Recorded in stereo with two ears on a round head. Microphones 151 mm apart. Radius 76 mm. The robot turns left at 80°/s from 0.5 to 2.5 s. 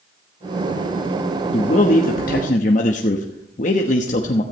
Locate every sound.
1.5 s a man speaking: 140° left, 1.1 m; by 4.4 s 60° left, 1.1 m